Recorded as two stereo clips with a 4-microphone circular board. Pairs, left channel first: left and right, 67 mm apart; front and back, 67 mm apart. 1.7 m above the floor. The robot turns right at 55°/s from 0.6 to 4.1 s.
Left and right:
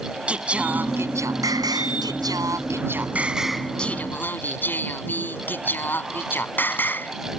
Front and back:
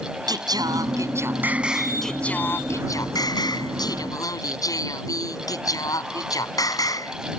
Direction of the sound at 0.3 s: 165° right.